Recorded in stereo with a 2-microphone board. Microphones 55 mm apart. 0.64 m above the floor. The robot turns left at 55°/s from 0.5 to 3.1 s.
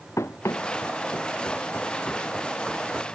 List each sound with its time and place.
0.2 s running footsteps: 65° left (ahead or behind); by 3.1 s 30° right (ahead or behind)